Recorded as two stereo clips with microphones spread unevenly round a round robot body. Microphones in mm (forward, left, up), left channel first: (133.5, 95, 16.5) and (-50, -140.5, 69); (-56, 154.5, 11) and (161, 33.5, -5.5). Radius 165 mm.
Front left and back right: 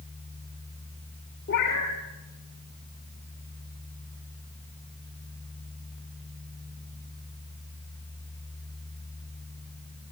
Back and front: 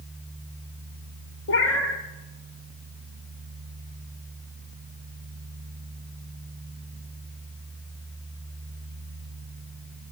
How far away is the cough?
No cough in this recording.